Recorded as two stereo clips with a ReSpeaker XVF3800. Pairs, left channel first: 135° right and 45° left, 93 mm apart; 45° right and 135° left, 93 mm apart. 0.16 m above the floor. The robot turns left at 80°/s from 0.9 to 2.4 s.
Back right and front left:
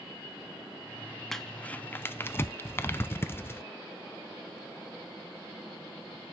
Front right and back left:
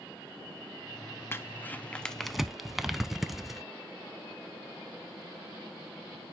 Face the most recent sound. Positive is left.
turn(degrees=-140)